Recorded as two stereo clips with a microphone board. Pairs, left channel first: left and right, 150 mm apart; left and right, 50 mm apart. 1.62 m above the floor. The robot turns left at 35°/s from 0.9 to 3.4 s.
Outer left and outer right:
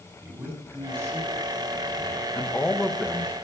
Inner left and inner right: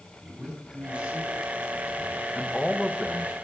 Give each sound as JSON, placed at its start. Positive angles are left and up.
{"t": 0.2, "sound": "a man speaking", "azimuth_deg": -15, "distance_m": 4.0}
{"t": 2.4, "sound": "a man speaking", "azimuth_deg": 20, "distance_m": 1.6}